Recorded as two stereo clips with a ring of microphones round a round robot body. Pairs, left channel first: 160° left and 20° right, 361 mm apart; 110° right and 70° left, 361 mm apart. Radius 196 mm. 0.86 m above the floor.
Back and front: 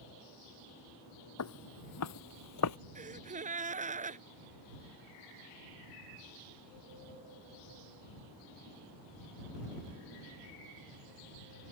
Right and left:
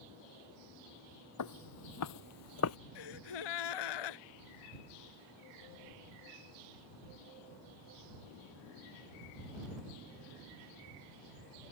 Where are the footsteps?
155° right; by 2.8 s 160° right.